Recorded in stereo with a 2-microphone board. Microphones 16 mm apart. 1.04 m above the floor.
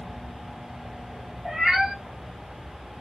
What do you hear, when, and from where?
1.4 s a cat meowing: 60° right (ahead or behind), 1.6 m